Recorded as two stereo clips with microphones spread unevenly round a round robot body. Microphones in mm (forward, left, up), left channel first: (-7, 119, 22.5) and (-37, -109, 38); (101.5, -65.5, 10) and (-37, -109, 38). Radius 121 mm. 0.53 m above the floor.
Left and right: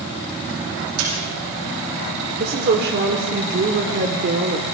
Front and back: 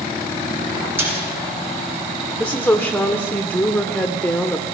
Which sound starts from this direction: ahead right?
A woman speaking, at 2.4 s.